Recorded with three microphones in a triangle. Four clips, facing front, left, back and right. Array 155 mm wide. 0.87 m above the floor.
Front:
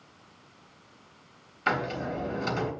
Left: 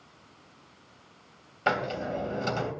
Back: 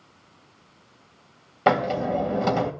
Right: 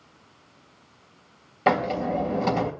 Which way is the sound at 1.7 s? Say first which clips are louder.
Right 6 dB, back 8 dB; 160° right.